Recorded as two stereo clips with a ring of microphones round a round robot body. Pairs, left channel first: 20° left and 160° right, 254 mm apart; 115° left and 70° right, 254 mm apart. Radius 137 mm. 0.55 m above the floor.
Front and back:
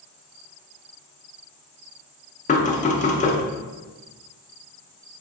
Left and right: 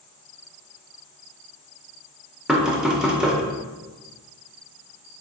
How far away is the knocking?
About 0.7 m.